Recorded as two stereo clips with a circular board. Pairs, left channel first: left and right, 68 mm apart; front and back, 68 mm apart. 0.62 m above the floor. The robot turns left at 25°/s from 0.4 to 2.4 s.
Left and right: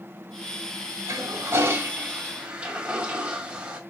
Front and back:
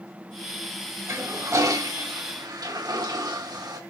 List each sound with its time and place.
1.1 s a toilet flushing: 130° right, 2 m; by 3.8 s 165° right, 2 m